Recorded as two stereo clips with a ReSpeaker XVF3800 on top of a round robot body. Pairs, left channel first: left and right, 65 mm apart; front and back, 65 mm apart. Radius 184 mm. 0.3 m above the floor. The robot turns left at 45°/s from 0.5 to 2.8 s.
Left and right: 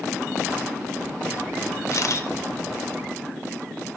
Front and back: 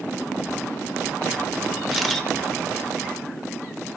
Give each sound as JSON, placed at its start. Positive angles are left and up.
{"t": 1.9, "sound": "a camera shutter", "azimuth_deg": 95, "distance_m": 1.4}